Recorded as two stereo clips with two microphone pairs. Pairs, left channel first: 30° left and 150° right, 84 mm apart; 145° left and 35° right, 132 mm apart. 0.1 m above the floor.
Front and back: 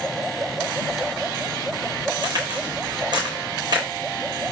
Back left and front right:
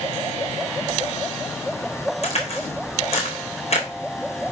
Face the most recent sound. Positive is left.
turn(degrees=180)